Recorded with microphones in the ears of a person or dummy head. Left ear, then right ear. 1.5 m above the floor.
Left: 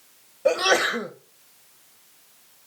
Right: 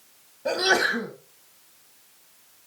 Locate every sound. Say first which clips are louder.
0.5 s a sneeze: left 2 dB; 40° left (ahead or behind), 1.6 m